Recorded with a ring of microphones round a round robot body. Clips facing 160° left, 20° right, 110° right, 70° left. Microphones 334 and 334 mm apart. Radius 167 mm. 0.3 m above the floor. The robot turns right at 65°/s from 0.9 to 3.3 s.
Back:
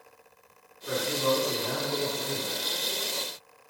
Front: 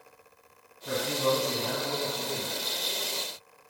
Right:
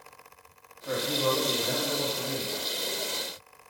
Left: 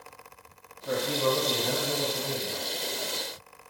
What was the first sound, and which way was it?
A man speaking, 20° right.